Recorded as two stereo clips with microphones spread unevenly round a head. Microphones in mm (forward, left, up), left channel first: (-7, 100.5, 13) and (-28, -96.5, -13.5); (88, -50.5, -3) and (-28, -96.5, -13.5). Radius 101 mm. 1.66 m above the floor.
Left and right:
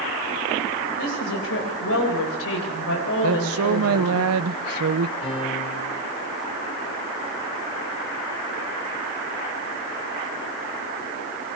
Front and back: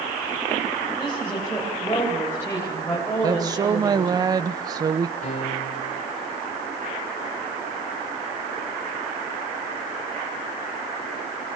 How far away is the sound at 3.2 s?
About 0.9 m.